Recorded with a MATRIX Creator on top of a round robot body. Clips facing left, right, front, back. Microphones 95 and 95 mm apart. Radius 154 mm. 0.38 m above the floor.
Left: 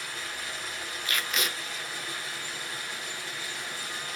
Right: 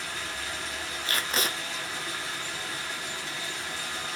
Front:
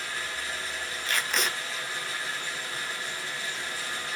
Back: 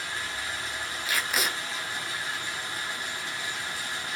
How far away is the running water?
About 1.7 m.